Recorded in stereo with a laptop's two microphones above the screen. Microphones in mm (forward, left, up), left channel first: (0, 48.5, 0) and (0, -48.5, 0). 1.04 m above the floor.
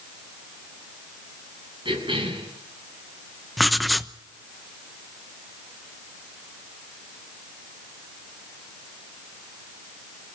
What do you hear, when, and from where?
1.9 s a cough: 60° right (ahead or behind), 7 m
3.6 s writing: centre (ahead or behind), 0.9 m